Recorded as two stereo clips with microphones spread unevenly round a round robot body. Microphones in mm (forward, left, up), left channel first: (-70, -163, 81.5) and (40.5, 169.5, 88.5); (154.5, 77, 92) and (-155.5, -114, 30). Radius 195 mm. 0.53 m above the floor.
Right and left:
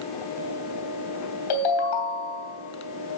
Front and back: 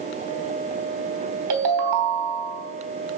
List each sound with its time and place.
1.5 s a ringtone: 110° right, 3 m